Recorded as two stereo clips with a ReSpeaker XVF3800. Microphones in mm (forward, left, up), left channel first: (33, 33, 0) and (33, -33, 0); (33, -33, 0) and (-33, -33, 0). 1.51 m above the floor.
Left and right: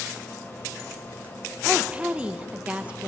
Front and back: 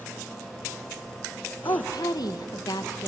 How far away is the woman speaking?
About 1.3 m.